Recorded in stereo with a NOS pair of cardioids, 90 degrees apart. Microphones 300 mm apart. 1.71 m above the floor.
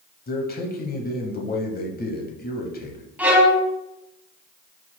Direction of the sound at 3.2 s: 5° right.